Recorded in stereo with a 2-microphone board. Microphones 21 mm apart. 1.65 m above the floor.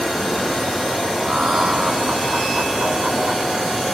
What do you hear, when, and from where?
1.2 s laughter: 70° right (ahead or behind); by 3.8 s 85° right